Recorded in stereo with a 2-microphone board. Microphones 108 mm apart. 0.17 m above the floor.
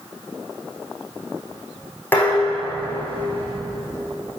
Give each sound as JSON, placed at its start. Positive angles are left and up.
{"t": 2.1, "sound": "dishes clattering", "side_deg": 20, "distance_m": 7.0}